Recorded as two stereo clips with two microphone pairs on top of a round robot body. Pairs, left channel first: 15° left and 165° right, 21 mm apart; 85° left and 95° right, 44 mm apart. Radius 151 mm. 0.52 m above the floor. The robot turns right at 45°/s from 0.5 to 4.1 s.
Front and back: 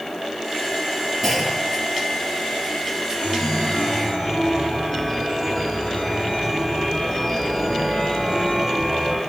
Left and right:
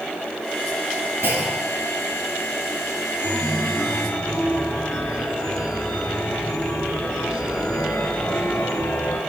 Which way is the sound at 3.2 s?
50° left.